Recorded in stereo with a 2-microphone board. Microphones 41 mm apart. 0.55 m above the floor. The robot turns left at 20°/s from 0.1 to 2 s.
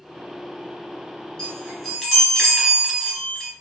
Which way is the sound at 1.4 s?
25° left (ahead or behind).